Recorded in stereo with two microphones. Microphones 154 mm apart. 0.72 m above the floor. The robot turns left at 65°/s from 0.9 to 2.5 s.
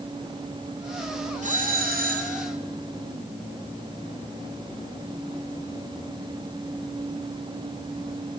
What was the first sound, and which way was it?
A doorbell, 55° right.